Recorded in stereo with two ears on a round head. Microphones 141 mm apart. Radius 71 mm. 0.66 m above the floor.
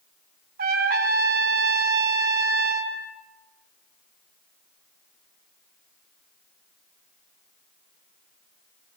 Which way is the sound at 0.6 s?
65° right (ahead or behind).